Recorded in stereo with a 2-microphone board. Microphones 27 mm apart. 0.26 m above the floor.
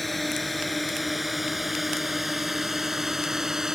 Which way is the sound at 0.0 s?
5° left (ahead or behind).